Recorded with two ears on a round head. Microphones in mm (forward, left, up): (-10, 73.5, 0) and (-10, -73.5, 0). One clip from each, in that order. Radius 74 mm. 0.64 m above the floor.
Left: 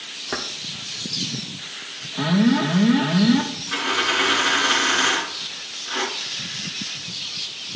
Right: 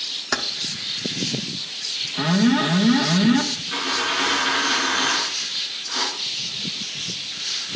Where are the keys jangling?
55° right (ahead or behind), 1.0 m.